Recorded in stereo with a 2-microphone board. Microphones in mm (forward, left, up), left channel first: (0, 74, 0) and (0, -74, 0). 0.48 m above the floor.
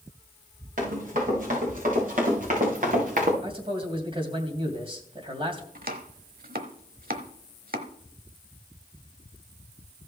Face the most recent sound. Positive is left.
turn(degrees=-80)